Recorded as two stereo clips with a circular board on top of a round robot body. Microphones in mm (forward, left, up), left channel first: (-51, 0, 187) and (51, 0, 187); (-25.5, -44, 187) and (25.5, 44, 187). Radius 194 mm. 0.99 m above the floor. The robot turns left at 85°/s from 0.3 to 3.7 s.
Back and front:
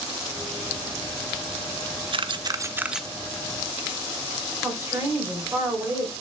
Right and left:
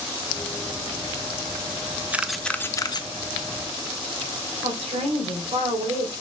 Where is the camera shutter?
10° right, 1.0 m; by 3.1 s 90° right, 1.0 m.